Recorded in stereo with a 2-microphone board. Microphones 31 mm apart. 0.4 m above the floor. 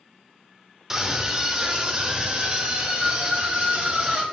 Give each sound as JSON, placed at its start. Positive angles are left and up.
{"t": 0.9, "sound": "a scream", "side_deg": -10, "distance_m": 1.2}